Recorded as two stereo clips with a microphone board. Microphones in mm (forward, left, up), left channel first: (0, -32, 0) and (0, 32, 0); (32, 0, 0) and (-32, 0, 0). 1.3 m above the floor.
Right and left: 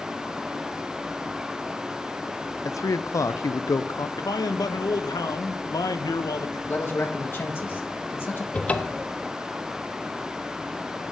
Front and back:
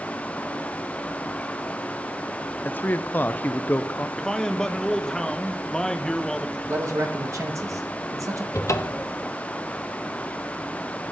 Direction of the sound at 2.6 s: 60° right.